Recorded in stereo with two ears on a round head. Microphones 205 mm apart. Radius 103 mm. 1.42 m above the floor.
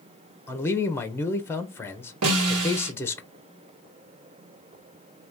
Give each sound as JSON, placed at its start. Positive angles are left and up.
{"t": 0.5, "sound": "a man speaking", "side_deg": 10, "distance_m": 0.6}
{"t": 2.2, "sound": "a snare drum", "side_deg": -70, "distance_m": 1.6}